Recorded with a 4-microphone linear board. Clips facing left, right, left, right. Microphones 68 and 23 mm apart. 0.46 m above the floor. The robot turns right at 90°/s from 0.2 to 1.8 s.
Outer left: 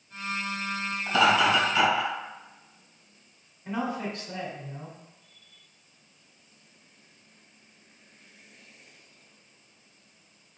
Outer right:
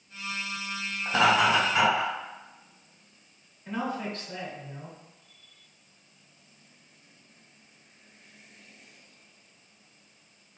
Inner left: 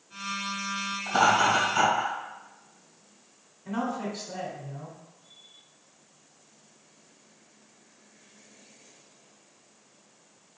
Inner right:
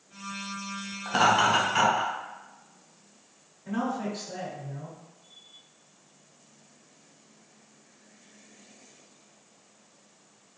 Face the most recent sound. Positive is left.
turn(degrees=20)  # may be behind; listen again after turning